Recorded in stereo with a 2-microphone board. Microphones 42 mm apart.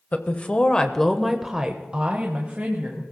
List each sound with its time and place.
0.1 s a woman speaking: 40° left (ahead or behind), 1.2 m; by 3.0 s 40° right (ahead or behind), 1.7 m